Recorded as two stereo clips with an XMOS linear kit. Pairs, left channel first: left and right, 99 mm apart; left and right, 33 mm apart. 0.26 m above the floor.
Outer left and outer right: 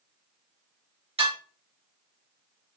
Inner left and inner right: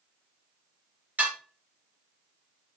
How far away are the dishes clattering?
About 2.5 m.